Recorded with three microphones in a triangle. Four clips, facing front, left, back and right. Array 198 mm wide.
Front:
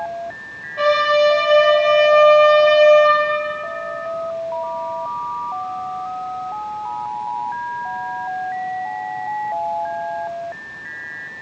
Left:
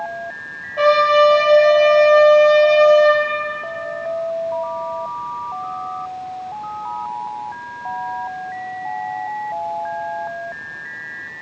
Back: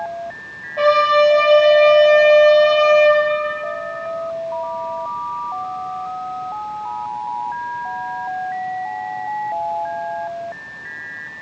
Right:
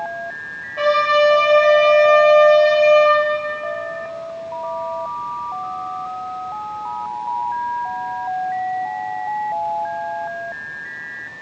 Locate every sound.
0.8 s a trumpet: 150° left, 2 m